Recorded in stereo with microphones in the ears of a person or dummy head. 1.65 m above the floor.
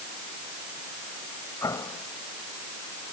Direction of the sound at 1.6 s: 15° left (ahead or behind).